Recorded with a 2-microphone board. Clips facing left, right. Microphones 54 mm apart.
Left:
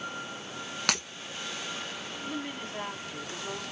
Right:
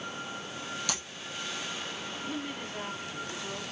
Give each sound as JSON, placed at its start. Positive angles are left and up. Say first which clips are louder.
{"t": 0.9, "sound": "breaking glass", "louder": "left 9 dB", "side_deg": 65, "distance_m": 1.2}
{"t": 2.2, "sound": "a woman speaking", "louder": "left 1 dB", "side_deg": 10, "distance_m": 1.8}